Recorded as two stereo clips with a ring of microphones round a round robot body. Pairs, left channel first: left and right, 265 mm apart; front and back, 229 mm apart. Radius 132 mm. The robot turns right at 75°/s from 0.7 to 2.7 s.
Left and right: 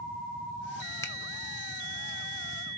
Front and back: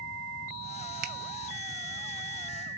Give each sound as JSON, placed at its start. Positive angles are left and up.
{"t": 1.0, "sound": "a finger snap", "azimuth_deg": 165, "distance_m": 0.9}